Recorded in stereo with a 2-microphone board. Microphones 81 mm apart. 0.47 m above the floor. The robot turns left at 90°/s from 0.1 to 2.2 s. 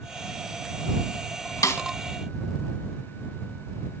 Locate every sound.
1.6 s a snare drum: 45° left (ahead or behind); by 1.8 s 25° left (ahead or behind)